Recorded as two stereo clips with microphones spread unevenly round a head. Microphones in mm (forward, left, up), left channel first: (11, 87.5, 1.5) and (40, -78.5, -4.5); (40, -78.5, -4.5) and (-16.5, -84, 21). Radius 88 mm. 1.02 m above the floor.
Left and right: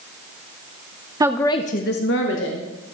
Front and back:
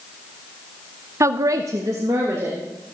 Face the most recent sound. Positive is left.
turn(degrees=110)